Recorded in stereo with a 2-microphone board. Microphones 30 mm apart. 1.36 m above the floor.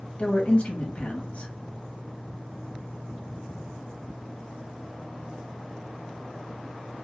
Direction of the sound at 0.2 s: 40° left (ahead or behind).